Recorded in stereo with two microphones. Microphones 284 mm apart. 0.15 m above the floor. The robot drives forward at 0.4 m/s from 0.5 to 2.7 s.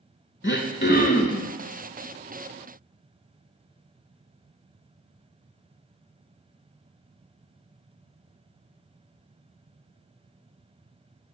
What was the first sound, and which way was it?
Throat clearing, 45° left (ahead or behind).